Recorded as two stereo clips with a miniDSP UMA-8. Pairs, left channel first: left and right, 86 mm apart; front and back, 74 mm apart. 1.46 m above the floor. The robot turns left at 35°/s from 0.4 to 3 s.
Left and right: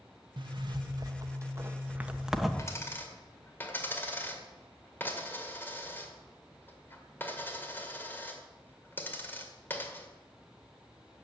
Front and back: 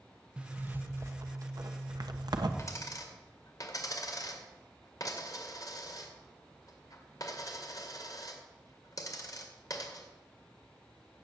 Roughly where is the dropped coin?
Ahead left.